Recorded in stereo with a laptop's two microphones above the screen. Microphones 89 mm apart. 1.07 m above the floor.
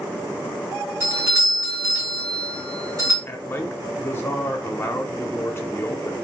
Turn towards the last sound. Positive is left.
turn(degrees=25)  # may be behind; listen again after turning